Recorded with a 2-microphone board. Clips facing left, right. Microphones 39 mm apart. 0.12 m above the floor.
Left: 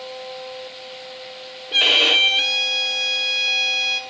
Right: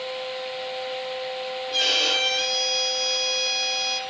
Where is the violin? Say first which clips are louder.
Left 7 dB; 45° left (ahead or behind), 0.7 m.